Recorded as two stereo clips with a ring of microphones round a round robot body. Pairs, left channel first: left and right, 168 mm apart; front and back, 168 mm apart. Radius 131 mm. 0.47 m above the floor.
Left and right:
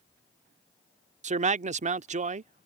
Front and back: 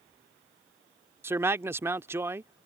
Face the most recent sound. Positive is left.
turn(degrees=-110)